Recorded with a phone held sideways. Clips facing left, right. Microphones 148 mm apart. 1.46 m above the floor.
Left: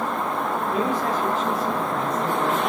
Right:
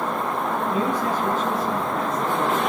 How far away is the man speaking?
About 6.5 m.